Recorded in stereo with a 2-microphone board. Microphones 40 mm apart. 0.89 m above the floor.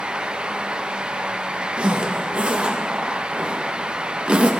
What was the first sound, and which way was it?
A zipper, 25° right (ahead or behind).